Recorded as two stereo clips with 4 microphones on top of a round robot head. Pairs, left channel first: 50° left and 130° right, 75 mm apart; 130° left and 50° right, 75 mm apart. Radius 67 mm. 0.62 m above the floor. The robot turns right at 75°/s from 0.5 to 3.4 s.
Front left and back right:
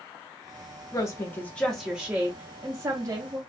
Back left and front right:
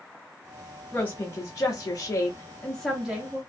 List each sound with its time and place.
0.9 s a woman speaking: 65° left, 0.8 m; by 3.4 s 110° right, 0.8 m